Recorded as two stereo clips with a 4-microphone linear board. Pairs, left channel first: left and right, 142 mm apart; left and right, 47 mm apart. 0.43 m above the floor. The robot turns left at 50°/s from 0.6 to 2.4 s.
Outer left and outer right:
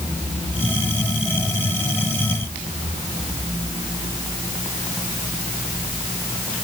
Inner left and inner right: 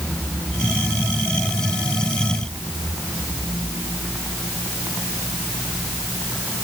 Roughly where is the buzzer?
No buzzer in this recording.